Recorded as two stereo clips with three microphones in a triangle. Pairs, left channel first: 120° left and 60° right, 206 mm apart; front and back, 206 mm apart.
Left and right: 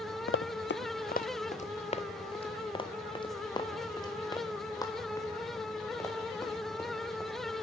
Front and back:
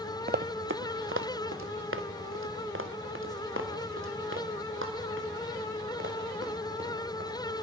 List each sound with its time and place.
0.3 s running footsteps: 135° left, 0.5 m; by 7.6 s 165° right, 4.5 m